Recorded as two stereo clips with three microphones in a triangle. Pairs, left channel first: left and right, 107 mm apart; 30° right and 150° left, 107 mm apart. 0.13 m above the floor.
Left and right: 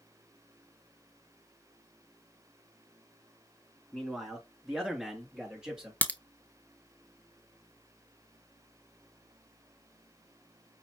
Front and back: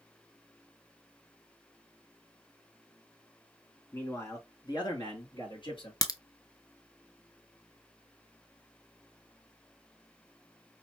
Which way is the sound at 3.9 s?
5° left.